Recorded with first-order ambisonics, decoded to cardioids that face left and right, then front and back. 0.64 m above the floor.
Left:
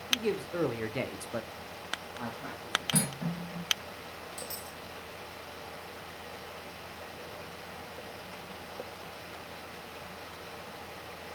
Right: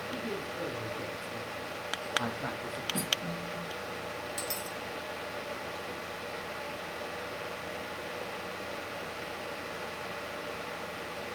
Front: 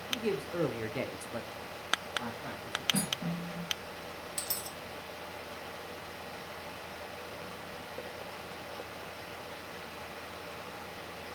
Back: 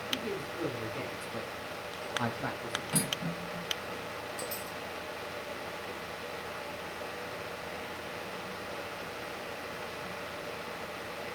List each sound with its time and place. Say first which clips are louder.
0.1 s a man speaking: left 11 dB, front 3 dB; 60° left, 2 m; by 2.8 s 140° right, 1.3 m
2.9 s cutlery clinking: right 3 dB, back 2 dB; 115° left, 3.5 m
4.4 s a dropped coin: right 5 dB, back 2 dB; 25° right, 1.9 m